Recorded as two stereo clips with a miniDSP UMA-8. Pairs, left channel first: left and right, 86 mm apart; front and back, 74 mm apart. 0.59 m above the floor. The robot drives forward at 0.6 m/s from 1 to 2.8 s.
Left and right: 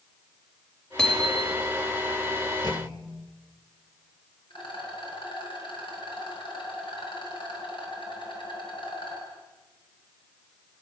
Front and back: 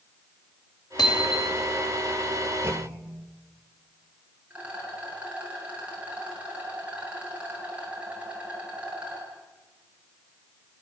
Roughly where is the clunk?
Behind left.